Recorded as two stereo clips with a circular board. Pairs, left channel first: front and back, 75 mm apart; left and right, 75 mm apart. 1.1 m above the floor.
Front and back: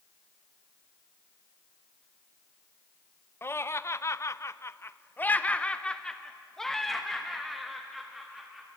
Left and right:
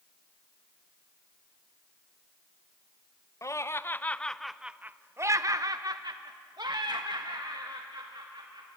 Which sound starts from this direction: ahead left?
Laughter, at 3.4 s.